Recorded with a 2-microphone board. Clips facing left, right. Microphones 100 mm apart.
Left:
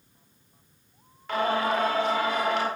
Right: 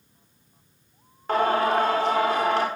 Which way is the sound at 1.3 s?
40° right (ahead or behind).